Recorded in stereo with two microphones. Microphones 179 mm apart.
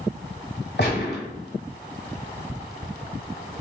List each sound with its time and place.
0.8 s a gunshot: 65° left (ahead or behind), 1.4 m